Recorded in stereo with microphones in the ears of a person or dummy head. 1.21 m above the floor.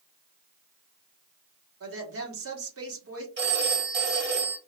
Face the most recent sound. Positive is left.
turn(degrees=-65)  # may be behind; listen again after turning